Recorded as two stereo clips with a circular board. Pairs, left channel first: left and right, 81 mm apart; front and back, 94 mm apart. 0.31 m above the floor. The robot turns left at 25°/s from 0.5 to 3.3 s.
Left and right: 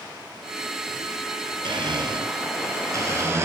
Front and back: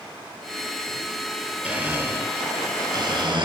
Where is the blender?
105° right, 3.5 m; by 3.5 s 145° right, 3.5 m.